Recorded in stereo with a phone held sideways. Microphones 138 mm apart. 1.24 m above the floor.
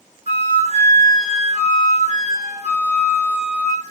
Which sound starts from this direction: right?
A flute, at 0.3 s.